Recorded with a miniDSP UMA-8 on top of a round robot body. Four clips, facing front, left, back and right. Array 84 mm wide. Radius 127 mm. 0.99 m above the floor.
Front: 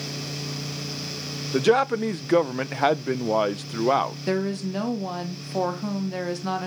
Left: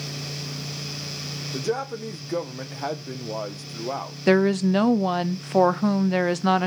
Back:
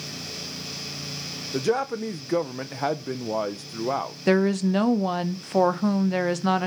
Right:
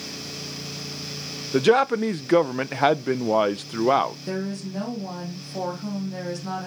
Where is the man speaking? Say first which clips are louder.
Right 10 dB, front 5 dB; 60° right, 0.7 m.